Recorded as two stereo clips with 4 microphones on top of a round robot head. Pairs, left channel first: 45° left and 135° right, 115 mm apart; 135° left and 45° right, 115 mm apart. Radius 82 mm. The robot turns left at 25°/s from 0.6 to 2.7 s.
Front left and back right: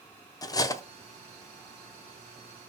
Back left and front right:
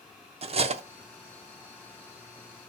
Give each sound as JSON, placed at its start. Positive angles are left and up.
{"t": 0.4, "sound": "cutlery clinking", "azimuth_deg": -10, "distance_m": 0.5}